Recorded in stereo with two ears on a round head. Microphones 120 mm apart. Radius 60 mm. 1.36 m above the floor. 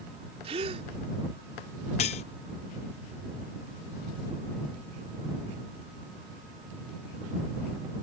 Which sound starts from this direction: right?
A gasp, at 0.4 s.